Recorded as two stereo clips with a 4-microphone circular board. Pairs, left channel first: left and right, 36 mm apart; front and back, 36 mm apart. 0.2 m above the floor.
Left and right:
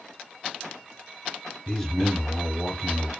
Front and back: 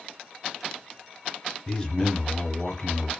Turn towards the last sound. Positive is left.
turn(degrees=35)